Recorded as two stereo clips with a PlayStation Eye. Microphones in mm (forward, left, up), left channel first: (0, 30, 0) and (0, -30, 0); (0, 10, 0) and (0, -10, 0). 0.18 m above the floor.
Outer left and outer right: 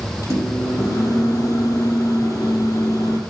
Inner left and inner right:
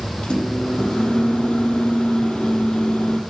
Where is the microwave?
65° left (ahead or behind), 4.5 m.